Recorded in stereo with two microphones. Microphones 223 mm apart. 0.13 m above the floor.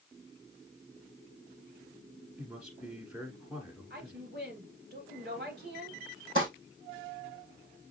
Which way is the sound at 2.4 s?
5° right (ahead or behind).